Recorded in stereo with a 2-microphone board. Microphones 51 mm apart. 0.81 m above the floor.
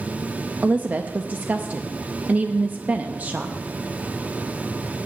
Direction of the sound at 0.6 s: 30° right (ahead or behind).